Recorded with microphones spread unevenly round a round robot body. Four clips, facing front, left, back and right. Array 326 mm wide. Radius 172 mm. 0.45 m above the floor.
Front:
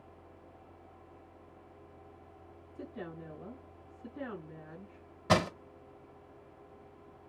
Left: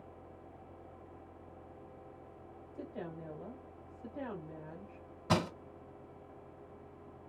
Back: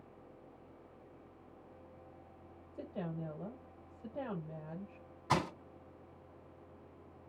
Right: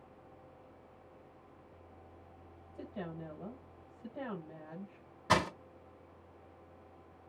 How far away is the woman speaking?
About 2.5 m.